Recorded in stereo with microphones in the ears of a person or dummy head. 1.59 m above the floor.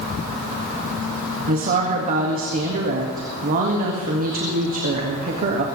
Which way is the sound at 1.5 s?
45° right (ahead or behind).